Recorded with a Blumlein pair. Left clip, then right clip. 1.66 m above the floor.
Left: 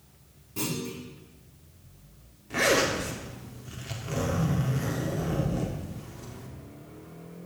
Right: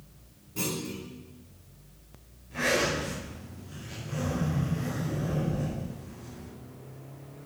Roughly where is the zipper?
Ahead left.